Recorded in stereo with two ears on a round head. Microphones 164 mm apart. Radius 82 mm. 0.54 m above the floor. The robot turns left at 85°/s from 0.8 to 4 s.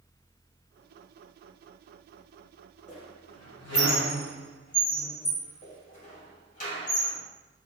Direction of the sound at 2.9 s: 35° left (ahead or behind).